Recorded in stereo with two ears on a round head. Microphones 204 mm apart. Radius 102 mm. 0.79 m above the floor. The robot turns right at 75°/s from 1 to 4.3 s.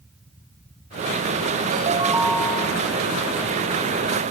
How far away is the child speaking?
No child speaking in this recording.